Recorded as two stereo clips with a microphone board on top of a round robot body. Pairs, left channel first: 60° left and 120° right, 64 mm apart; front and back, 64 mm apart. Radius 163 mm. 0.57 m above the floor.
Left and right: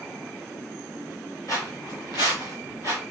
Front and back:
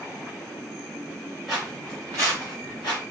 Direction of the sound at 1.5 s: 95° left.